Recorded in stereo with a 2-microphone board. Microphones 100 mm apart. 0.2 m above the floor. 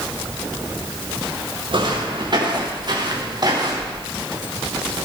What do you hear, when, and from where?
1.7 s footsteps: 50° right (ahead or behind), 5.5 m; by 4.0 s 40° right (ahead or behind), 5.5 m